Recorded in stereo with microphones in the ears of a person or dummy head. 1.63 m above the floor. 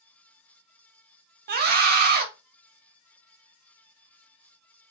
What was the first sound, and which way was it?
A scream, 55° right (ahead or behind).